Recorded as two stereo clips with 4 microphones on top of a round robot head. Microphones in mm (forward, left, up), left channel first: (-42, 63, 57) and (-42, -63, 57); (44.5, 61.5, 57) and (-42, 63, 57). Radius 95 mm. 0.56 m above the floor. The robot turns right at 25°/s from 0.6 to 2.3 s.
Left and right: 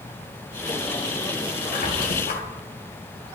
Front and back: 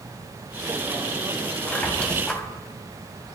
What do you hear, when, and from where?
1.7 s a squeak: 70° left, 1.7 m; by 2.4 s 85° left, 1.7 m